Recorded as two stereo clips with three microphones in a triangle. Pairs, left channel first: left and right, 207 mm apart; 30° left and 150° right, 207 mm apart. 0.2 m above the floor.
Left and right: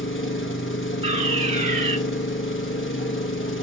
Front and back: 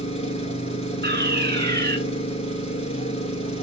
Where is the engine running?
85° left, 0.8 m.